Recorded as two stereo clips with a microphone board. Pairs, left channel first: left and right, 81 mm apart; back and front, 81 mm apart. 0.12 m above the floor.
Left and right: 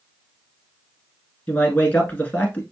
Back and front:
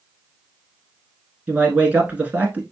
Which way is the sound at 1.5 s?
45° left.